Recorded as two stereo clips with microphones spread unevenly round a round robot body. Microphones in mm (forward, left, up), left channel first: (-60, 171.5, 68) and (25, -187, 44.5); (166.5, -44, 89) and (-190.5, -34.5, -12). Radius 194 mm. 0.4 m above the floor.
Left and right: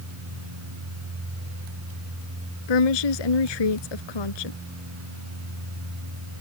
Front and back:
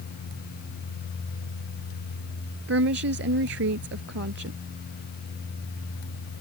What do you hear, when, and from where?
2.7 s a woman speaking: 120° left